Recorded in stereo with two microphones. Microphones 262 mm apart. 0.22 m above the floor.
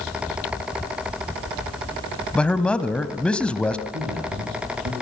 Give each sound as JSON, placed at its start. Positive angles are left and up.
{"t": 2.4, "sound": "a man speaking", "side_deg": 5, "distance_m": 1.1}
{"t": 3.9, "sound": "a man speaking", "side_deg": -65, "distance_m": 6.5}